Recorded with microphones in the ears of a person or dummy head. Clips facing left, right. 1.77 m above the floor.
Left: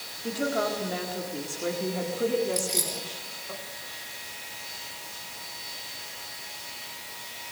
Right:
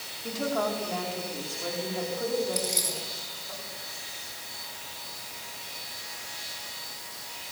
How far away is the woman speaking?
About 5 m.